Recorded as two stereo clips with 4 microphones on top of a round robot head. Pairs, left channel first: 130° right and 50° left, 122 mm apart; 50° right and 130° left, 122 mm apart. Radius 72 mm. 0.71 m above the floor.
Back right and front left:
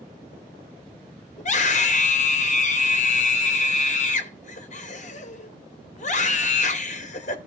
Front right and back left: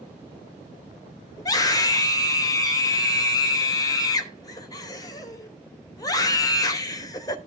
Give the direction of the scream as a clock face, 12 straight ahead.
4 o'clock.